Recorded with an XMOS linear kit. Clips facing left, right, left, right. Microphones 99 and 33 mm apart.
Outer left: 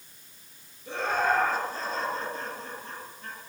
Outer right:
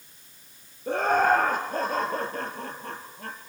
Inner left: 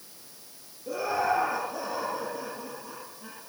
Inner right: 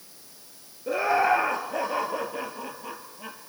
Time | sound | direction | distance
0.9 | laughter | 55° right (ahead or behind) | 2.5 m